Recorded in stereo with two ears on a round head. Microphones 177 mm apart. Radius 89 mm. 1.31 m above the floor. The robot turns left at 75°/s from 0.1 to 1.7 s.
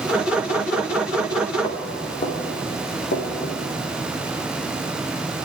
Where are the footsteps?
30° left (ahead or behind), 5 m; by 3.6 s 60° left (ahead or behind), 5 m.